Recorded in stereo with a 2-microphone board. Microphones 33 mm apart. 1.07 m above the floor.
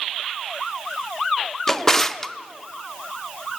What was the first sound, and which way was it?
A drawer, 10° left (ahead or behind).